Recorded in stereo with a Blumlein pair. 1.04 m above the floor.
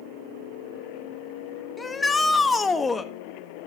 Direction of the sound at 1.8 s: 10° left.